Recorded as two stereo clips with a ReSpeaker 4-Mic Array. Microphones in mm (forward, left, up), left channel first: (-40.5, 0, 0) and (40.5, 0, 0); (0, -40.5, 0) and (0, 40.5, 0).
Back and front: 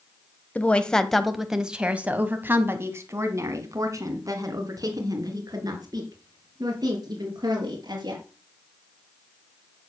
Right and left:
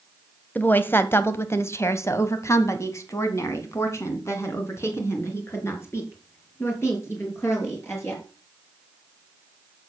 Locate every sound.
0.6 s a woman speaking: 130° right, 1.4 m; by 8.2 s 30° right, 5 m